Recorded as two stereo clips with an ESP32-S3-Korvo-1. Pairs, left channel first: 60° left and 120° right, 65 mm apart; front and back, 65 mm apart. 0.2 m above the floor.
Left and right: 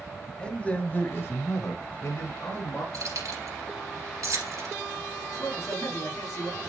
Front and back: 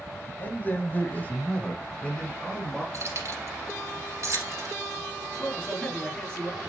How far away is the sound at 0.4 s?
About 1.2 m.